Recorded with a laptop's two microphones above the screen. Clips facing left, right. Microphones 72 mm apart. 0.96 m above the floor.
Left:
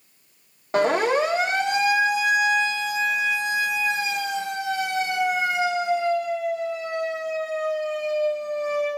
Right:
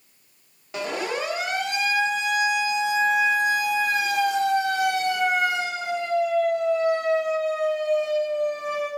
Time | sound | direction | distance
0.7 | a siren | 45° left (ahead or behind) | 2 m